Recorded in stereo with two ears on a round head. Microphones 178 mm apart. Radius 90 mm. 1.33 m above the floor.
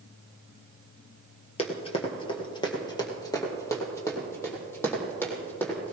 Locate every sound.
1.6 s running footsteps: 30° left (ahead or behind), 1.7 m; by 5.9 s 10° left (ahead or behind), 3.5 m